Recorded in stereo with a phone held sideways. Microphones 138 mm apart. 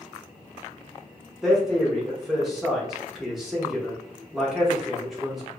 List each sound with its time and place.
1.4 s a man speaking: 5° right (ahead or behind), 1.2 m